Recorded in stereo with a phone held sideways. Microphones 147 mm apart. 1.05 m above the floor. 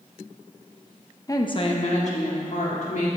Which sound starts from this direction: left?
A woman speaking, at 1.3 s.